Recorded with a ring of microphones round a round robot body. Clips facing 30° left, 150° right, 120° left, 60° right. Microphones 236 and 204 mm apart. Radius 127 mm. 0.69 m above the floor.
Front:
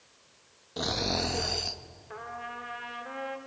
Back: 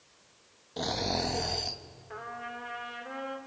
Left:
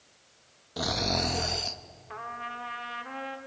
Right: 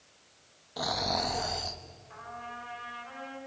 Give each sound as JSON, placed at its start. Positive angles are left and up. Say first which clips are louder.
{"t": 0.8, "sound": "snoring", "louder": "front 1 dB, left 3 dB", "azimuth_deg": 105, "distance_m": 1.0}
{"t": 2.1, "sound": "a trumpet", "louder": "even, left 3 dB", "azimuth_deg": 120, "distance_m": 2.0}